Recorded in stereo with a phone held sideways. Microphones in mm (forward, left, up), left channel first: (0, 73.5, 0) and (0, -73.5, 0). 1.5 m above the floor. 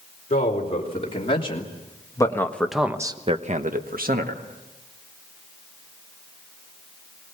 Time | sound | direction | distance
0.3 | a man speaking | 45° left (ahead or behind) | 4 m